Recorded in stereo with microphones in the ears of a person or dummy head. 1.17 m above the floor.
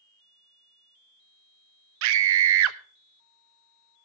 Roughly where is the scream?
Right.